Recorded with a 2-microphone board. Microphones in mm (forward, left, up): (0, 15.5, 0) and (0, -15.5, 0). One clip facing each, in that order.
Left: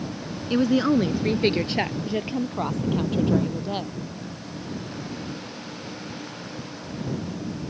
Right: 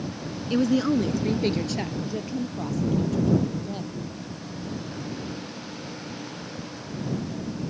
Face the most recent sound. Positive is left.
turn(degrees=50)  # may be behind; listen again after turning